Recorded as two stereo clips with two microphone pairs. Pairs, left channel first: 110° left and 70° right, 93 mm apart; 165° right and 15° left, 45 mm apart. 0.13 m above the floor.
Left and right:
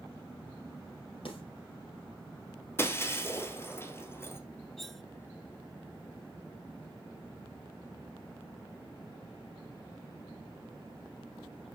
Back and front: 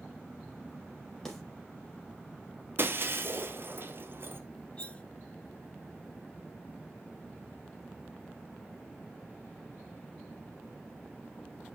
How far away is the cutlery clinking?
About 0.7 m.